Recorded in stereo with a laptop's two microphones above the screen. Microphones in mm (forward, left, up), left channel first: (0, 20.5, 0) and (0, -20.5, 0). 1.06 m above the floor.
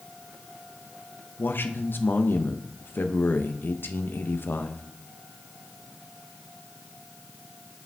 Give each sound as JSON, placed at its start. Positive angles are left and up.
{"t": 1.4, "sound": "a man speaking", "side_deg": 60, "distance_m": 0.6}